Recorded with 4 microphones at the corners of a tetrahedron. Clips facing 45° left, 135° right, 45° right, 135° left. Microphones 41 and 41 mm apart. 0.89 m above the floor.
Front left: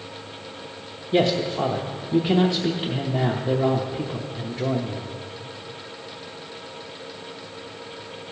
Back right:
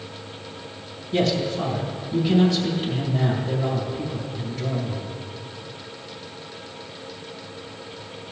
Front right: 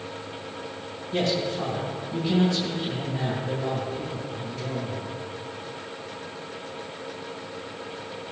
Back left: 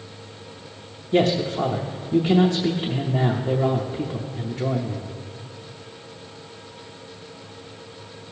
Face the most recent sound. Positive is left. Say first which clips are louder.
# front left 2 dB, back left 6 dB
turn(degrees=90)